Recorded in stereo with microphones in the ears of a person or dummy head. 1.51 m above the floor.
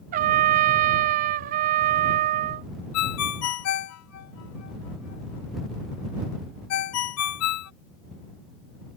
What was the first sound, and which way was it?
A trumpet, 45° right (ahead or behind).